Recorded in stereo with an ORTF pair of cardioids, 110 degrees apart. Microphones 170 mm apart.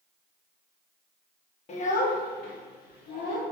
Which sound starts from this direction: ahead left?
A child speaking, at 1.7 s.